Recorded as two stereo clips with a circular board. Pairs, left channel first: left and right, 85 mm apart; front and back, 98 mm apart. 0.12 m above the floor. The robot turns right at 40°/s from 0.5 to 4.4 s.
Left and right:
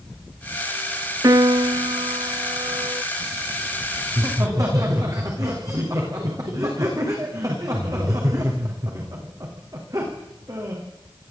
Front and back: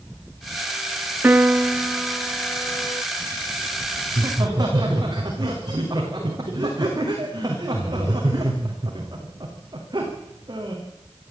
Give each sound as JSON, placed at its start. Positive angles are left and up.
{"t": 1.2, "sound": "a piano", "azimuth_deg": -115, "distance_m": 0.5}
{"t": 4.1, "sound": "laughter", "azimuth_deg": -150, "distance_m": 7.5}